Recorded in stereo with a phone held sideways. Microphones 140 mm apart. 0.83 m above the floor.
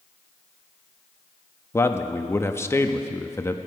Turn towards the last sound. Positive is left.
turn(degrees=20)  # may be behind; listen again after turning